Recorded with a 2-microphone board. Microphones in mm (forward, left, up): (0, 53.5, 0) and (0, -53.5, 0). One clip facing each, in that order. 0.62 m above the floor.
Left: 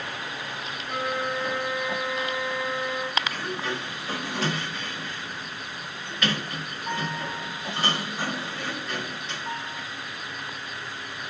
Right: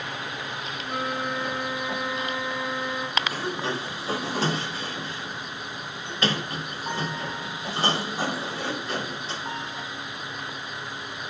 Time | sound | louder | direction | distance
0.8 | a flute | left 1 dB | 30° right (ahead or behind) | 4.5 m
3.2 | a sliding door | right 2 dB | 30° right (ahead or behind) | 0.7 m